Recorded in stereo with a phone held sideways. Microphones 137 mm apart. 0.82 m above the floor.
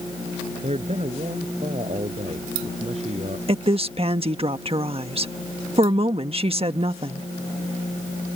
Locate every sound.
0.6 s a man speaking: 50° right (ahead or behind)
3.5 s a woman speaking: 45° right (ahead or behind)